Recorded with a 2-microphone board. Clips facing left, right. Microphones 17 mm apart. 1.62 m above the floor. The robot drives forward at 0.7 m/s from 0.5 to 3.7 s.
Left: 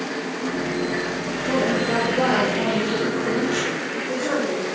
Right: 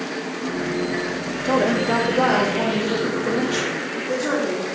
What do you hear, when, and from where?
1.4 s a woman speaking: 45° right (ahead or behind), 0.6 m; by 4.6 s 15° right (ahead or behind), 1.9 m